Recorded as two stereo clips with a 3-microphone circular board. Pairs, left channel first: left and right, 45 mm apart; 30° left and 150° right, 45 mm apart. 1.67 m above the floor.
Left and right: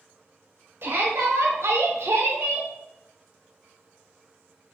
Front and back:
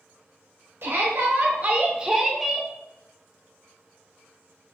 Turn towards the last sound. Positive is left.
turn(degrees=-50)